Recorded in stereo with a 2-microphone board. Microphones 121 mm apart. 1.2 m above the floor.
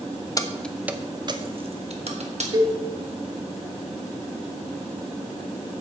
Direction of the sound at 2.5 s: 35° right (ahead or behind).